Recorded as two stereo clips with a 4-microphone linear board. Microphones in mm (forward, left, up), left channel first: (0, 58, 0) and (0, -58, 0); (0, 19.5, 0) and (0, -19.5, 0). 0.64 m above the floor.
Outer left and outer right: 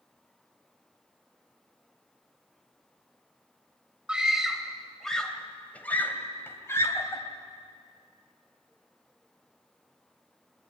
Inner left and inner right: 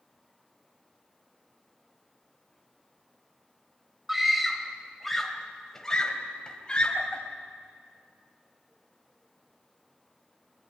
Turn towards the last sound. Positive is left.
turn(degrees=25)  # may be behind; listen again after turning